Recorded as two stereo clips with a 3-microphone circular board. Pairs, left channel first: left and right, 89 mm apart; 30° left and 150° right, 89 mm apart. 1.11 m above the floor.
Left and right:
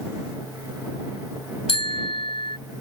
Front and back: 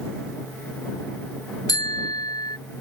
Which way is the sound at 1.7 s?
75° left.